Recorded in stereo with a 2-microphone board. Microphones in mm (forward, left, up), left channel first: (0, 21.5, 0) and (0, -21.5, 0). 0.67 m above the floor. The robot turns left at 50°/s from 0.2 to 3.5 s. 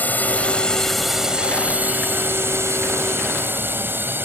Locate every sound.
0.0 s a drone: 40° left (ahead or behind); by 4.3 s 55° right (ahead or behind)